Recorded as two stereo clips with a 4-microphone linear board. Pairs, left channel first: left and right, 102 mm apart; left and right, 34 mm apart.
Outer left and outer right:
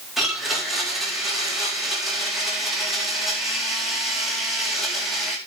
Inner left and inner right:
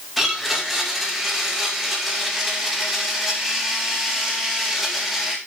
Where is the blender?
Centre (ahead or behind), 3.5 m.